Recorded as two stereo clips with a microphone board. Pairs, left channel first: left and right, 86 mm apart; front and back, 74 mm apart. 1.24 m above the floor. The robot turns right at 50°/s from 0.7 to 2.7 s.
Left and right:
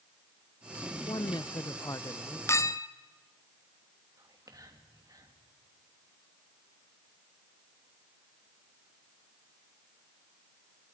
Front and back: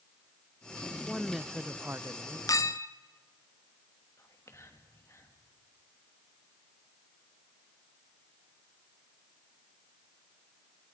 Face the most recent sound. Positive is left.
turn(degrees=-45)